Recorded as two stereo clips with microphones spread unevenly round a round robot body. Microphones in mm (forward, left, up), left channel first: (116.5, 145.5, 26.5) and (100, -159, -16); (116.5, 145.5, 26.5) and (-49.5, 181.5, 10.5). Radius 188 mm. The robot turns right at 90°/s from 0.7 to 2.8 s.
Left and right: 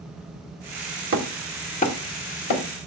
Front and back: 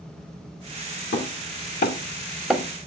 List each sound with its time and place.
1.1 s hammering: 45° right, 1.4 m; by 2.6 s 90° left, 1.4 m